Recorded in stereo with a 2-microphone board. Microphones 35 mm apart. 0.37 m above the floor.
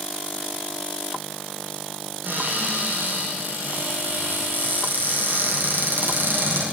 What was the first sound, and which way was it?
A cupboard door, 70° right (ahead or behind).